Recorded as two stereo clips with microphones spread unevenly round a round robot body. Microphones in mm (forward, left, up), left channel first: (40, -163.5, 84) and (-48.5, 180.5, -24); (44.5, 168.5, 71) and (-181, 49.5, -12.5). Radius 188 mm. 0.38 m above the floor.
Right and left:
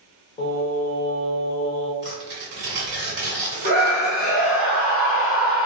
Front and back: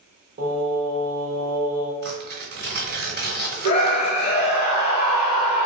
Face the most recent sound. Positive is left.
turn(degrees=85)